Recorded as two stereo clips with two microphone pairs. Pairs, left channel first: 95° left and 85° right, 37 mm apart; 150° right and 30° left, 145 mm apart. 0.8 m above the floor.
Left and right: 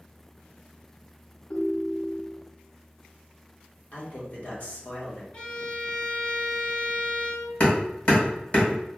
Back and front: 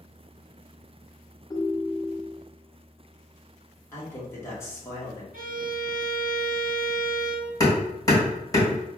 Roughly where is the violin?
Ahead left.